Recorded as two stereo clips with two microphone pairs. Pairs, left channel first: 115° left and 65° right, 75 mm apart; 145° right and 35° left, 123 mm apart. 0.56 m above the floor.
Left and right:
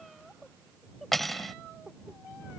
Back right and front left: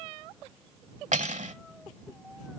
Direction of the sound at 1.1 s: 30° left.